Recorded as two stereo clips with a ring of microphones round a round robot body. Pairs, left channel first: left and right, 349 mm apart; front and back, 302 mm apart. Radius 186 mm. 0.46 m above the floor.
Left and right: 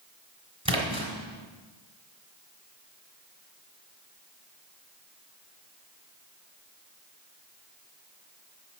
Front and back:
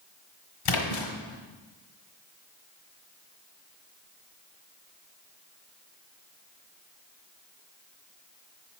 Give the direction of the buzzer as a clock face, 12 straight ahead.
I don't hear a buzzer.